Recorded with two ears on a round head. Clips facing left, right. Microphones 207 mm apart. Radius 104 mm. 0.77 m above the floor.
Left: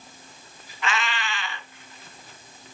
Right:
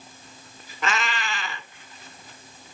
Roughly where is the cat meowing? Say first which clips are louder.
Right 1 dB; right.